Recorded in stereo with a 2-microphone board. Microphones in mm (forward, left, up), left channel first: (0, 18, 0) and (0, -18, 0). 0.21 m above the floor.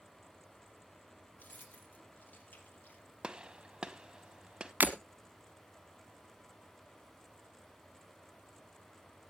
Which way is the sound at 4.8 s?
50° right (ahead or behind).